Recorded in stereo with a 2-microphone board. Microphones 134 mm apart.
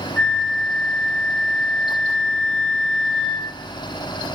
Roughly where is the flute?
Centre.